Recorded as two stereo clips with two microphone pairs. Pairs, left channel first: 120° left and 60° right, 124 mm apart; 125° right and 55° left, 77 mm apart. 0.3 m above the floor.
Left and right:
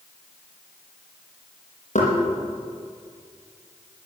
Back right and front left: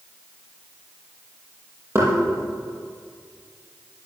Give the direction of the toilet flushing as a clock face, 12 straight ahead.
No toilet flushing in this recording.